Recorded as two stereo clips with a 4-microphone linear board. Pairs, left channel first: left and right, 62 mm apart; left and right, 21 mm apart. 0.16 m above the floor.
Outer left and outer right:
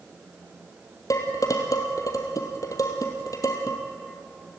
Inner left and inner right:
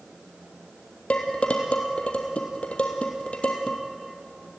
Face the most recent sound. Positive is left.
turn(degrees=65)  # may be behind; listen again after turning